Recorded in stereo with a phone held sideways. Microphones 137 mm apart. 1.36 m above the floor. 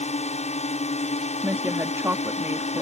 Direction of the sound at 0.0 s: 60° left (ahead or behind).